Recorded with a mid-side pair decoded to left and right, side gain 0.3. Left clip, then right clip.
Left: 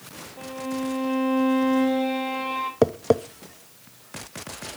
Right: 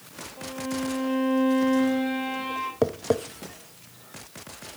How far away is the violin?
About 3.5 m.